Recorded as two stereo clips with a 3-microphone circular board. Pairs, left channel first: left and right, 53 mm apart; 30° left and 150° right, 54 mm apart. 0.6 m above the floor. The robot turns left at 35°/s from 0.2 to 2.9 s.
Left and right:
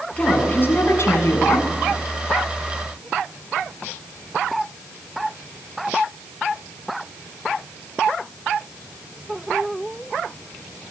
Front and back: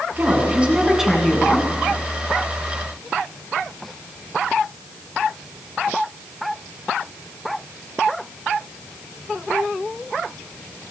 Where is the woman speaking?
155° left, 6.5 m; by 1.7 s 105° left, 6.5 m.